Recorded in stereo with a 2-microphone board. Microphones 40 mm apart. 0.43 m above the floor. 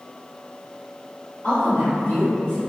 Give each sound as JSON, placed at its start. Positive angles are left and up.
{"t": 1.4, "sound": "a woman speaking", "side_deg": 30, "distance_m": 1.7}